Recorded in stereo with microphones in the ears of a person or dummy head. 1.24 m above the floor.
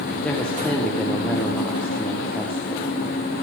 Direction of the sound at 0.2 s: 10° left (ahead or behind).